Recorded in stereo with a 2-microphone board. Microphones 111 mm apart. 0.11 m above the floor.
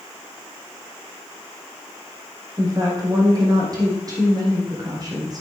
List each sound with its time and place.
2.6 s a woman speaking: 35° right (ahead or behind), 4 m